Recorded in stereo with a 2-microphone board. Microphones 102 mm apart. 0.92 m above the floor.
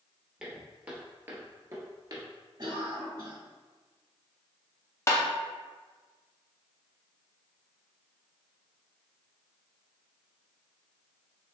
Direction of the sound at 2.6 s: 50° right (ahead or behind).